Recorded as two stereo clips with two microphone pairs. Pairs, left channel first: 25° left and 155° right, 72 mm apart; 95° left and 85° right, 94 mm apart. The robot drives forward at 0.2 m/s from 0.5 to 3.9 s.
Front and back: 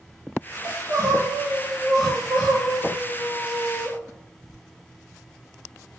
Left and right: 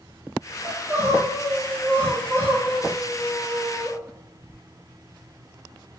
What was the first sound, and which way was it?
Crying, 140° right.